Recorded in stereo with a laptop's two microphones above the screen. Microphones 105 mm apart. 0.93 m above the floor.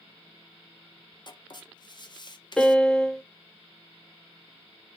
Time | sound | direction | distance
1.3 | writing | 45° left (ahead or behind) | 0.5 m
2.6 | a piano | 5° left (ahead or behind) | 0.5 m